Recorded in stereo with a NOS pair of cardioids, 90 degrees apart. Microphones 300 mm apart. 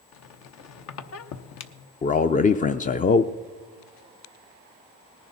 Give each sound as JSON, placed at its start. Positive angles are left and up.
{"t": 0.1, "sound": "a squeak", "azimuth_deg": 65, "distance_m": 1.0}
{"t": 2.0, "sound": "a man speaking", "azimuth_deg": 30, "distance_m": 0.5}